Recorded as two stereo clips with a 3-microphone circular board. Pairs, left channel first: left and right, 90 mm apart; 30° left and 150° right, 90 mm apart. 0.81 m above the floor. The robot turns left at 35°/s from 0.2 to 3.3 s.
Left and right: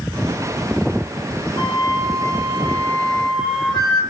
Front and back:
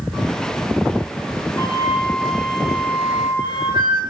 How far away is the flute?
About 2.5 m.